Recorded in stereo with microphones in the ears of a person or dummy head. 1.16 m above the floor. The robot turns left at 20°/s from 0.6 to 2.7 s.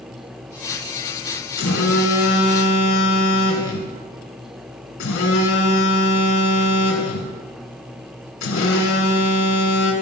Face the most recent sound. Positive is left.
turn(degrees=80)